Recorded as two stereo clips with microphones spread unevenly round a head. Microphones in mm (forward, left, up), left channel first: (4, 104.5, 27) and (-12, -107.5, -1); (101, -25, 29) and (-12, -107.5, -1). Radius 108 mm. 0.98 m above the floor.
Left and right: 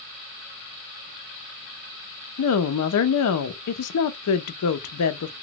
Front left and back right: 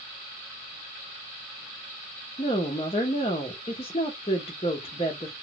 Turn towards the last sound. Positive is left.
turn(degrees=105)